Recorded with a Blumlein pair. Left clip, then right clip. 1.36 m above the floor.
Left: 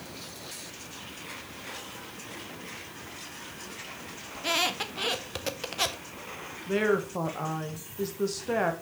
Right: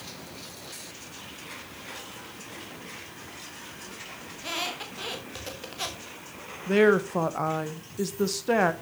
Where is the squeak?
20° left, 1.3 m.